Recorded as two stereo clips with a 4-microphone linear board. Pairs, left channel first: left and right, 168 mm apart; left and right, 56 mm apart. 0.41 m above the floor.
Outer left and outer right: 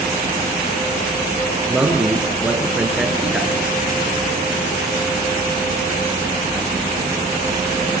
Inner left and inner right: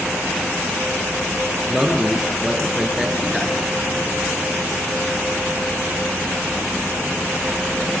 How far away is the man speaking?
About 6.5 m.